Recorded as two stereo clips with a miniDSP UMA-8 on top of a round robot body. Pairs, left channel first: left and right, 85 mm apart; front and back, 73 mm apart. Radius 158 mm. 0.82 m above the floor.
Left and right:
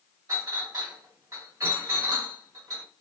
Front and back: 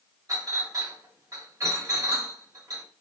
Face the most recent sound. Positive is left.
turn(degrees=-140)